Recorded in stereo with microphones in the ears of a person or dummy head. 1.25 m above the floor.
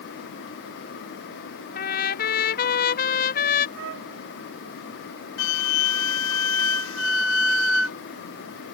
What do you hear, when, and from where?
1.8 s a trumpet: 45° left (ahead or behind)
3.8 s a trumpet: 60° right (ahead or behind)
5.4 s a flute: 75° left (ahead or behind)